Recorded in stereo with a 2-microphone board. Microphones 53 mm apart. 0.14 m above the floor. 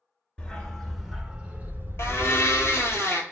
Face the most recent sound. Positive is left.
turn(degrees=55)  # may be behind; listen again after turning